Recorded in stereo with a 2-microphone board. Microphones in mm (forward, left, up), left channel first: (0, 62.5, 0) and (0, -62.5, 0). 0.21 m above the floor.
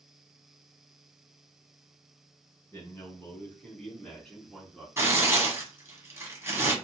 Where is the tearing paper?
25° right (ahead or behind), 1.3 m.